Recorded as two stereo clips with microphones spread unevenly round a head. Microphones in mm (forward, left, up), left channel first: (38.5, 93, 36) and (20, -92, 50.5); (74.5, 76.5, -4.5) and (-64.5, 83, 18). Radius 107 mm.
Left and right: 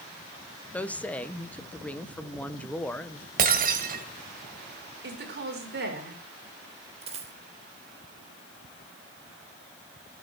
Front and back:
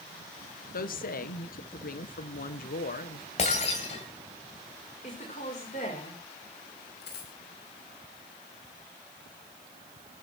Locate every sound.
0.7 s a woman speaking: straight ahead, 1.4 m
3.4 s breaking glass: 60° right, 2 m
5.0 s a woman speaking: 65° right, 5 m
7.0 s a dropped coin: 40° right, 3 m